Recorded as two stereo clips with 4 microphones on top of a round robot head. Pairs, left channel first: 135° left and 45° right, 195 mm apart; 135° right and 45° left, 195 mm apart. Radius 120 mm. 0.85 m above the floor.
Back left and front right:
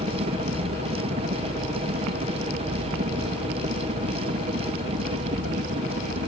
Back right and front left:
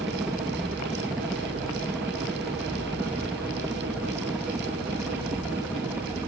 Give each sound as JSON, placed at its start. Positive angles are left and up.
{"t": 0.0, "sound": "a helicopter", "azimuth_deg": -40}